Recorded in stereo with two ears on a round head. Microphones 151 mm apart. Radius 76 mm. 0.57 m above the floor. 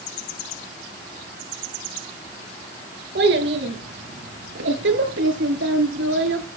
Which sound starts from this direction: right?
A child speaking, at 3.1 s.